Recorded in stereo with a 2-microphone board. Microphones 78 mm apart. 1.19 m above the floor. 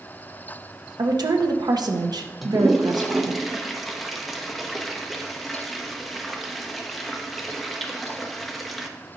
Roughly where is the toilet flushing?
Centre.